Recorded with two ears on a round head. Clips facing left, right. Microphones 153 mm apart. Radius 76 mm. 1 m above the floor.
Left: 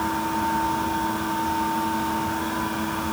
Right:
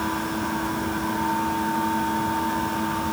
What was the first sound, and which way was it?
Only background noise.